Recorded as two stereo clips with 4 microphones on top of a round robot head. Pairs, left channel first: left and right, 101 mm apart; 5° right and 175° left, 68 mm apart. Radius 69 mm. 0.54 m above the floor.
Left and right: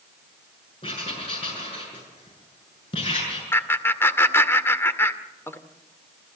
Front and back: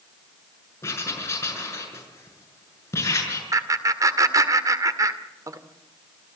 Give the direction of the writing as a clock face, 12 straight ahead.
11 o'clock.